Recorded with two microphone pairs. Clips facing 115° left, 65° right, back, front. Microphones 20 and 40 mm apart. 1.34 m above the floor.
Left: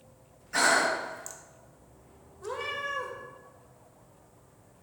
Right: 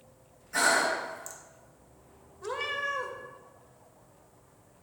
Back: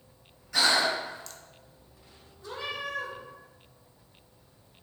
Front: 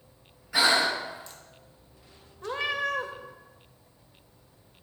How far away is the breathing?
About 0.8 m.